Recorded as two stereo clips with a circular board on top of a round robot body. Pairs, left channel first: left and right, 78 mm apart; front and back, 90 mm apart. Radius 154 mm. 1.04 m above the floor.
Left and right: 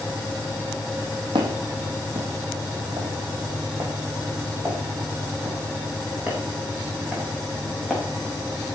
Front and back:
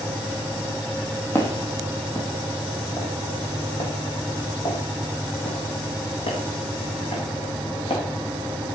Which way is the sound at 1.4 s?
70° right.